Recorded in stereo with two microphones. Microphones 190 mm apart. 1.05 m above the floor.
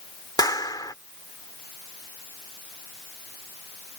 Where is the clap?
20° left (ahead or behind).